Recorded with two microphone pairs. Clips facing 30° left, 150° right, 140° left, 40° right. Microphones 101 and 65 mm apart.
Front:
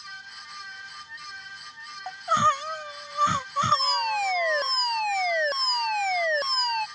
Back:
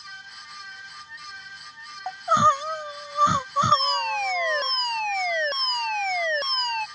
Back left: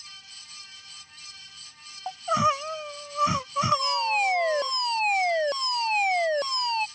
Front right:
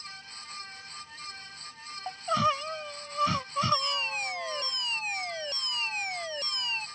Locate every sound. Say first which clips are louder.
2.1 s crying: back 3 dB, back left 3 dB; 170° right
3.7 s a fire alarm: back 2 dB, back left 6 dB; 115° left